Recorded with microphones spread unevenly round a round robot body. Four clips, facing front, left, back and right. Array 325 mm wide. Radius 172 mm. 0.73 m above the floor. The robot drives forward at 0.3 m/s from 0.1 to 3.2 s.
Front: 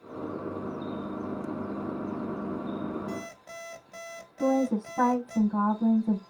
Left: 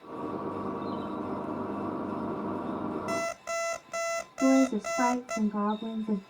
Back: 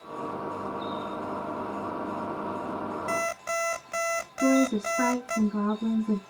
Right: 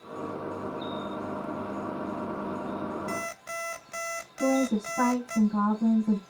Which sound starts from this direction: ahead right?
A woman speaking, at 4.4 s.